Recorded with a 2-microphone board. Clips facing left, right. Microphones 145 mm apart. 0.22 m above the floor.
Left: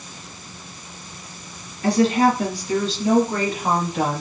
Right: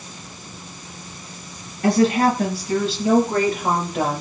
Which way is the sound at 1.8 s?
50° right (ahead or behind).